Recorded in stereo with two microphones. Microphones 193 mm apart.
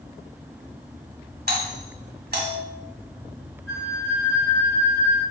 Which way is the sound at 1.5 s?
55° right (ahead or behind).